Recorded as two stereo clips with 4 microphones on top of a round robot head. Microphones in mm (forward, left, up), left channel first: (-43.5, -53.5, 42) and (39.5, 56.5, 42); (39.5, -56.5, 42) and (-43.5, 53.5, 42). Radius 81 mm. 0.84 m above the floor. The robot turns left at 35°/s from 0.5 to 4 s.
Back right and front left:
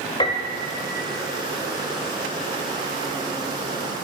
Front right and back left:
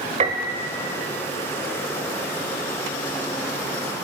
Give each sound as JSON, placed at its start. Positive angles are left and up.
{"t": 0.2, "sound": "a piano", "azimuth_deg": 175, "distance_m": 1.3}